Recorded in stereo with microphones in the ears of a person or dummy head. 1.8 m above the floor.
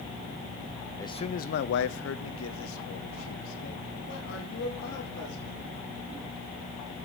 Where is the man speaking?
25° left (ahead or behind), 0.7 m; by 5.6 s 65° left (ahead or behind), 4 m.